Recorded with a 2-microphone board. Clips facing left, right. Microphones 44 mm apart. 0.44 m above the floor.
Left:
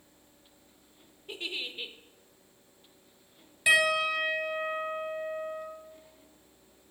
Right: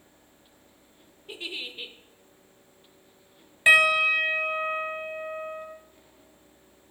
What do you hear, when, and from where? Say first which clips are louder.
1.3 s a giggle: right 1 dB; centre (ahead or behind), 0.7 m
3.7 s a piano: right 6 dB; 40° right (ahead or behind), 1.2 m